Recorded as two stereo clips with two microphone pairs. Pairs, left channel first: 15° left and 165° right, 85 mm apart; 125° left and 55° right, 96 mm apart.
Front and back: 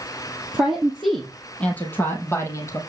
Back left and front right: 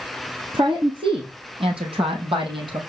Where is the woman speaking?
85° right, 3.5 m; by 2.8 s 35° right, 4 m.